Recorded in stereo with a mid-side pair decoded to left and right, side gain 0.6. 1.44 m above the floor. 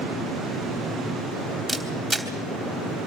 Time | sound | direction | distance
1.7 | a camera shutter | straight ahead | 3 m